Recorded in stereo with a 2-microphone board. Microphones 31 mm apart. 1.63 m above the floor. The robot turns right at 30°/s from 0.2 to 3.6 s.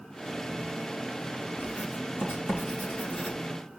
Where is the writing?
60° left (ahead or behind), 5 m.